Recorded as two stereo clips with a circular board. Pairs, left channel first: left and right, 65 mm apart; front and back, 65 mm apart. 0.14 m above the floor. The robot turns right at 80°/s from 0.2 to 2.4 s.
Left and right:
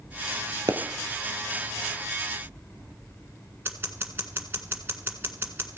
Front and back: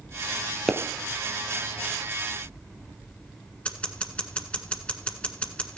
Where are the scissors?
60° right, 1.4 m.